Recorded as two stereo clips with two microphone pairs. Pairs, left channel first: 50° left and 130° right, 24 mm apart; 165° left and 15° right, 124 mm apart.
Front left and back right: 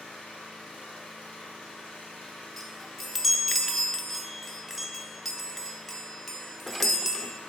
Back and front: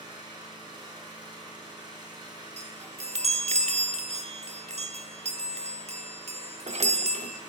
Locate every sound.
0.0 s an engine running: 40° left, 3 m
2.6 s a chime: 35° right, 0.7 m